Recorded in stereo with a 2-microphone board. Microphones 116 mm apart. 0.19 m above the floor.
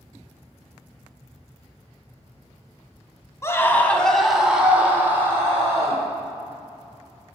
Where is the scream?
25° left (ahead or behind), 1.0 m; by 6.0 s 25° right (ahead or behind), 2.0 m.